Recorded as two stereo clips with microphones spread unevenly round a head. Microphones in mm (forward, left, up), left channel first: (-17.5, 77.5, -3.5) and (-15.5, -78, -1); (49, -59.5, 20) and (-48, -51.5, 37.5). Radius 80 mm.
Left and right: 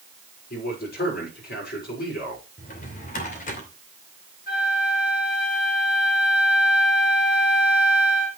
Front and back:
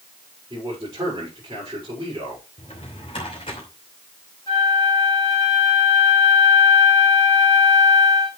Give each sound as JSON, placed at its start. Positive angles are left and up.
{"t": 0.5, "sound": "a man speaking", "azimuth_deg": 110, "distance_m": 6.5}
{"t": 2.6, "sound": "a drawer", "azimuth_deg": 55, "distance_m": 2.5}
{"t": 4.5, "sound": "a flute", "azimuth_deg": 55, "distance_m": 4.0}